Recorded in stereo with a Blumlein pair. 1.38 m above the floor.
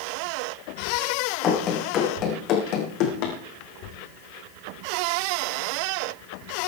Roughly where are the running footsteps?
Ahead left.